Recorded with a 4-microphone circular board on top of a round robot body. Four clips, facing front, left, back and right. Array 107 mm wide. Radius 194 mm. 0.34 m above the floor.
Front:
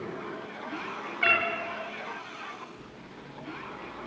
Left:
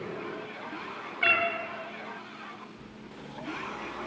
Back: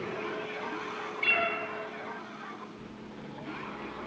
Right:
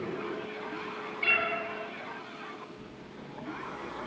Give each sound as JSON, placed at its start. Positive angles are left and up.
{"t": 1.2, "sound": "a cat meowing", "azimuth_deg": 30, "distance_m": 5.0}